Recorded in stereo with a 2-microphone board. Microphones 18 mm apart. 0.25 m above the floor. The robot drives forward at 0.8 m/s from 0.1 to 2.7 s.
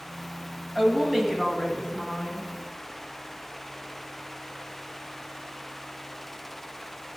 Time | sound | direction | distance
0.8 | a woman speaking | 25° right (ahead or behind) | 1.7 m